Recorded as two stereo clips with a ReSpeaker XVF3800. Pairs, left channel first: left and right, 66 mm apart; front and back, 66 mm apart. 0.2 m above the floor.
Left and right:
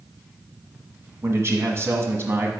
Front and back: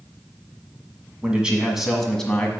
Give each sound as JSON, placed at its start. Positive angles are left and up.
{"t": 1.2, "sound": "a man speaking", "azimuth_deg": -115, "distance_m": 1.6}